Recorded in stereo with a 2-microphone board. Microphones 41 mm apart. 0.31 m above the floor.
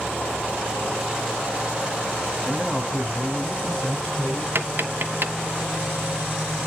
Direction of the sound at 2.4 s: Centre (ahead or behind).